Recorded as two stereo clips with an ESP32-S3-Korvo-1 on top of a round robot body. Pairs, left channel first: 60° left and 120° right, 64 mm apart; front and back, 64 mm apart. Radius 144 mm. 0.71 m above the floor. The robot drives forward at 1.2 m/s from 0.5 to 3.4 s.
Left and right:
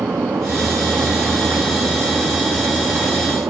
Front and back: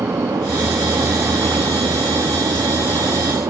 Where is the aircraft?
160° right; by 3.5 s 165° right.